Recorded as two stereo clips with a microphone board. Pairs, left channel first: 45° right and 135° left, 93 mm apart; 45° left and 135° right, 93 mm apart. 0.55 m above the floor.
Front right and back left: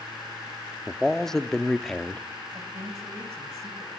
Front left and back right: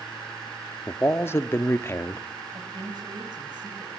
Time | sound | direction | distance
0.9 | a man speaking | 35° left | 0.7 m
2.5 | a woman speaking | 170° right | 4 m